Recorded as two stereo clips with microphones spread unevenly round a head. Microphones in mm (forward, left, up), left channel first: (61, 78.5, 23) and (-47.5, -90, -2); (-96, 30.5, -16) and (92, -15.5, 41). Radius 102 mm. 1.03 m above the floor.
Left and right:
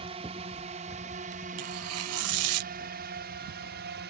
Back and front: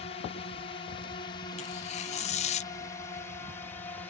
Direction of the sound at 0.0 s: 170° right.